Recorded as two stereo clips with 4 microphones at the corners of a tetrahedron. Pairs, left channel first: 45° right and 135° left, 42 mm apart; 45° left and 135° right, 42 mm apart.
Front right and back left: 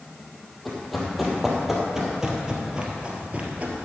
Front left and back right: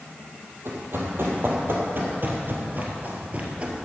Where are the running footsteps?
135° right, 2.5 m; by 3.9 s 170° left, 1.7 m.